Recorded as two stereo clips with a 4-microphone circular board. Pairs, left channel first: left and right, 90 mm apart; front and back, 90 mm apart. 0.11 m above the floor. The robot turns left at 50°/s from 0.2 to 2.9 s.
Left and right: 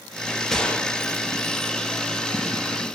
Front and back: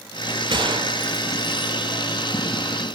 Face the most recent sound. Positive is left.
turn(degrees=55)